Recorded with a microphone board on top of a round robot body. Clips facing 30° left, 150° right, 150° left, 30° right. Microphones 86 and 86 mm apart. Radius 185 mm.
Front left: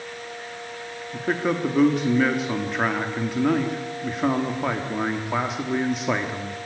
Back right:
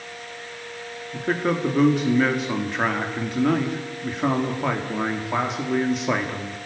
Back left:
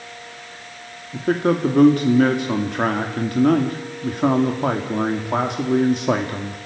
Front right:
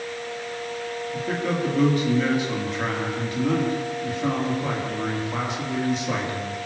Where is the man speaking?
120° left, 2.5 m.